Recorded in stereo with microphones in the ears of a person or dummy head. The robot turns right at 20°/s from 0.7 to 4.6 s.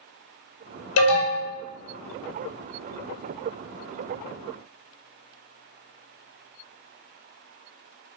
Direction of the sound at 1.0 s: 70° left (ahead or behind).